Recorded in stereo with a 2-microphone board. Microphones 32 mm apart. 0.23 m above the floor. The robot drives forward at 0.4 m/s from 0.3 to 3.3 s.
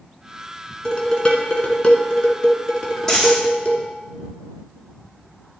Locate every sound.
0.8 s dishes clattering: 35° left (ahead or behind), 1.7 m; by 3.9 s 25° left (ahead or behind), 2.5 m
3.1 s a dropped coin: 10° left (ahead or behind), 4.5 m